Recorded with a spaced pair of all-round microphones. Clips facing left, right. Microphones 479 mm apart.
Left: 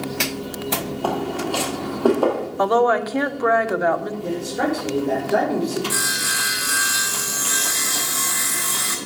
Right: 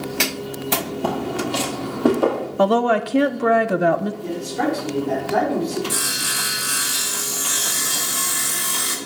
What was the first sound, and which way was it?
Footsteps, 40° right (ahead or behind).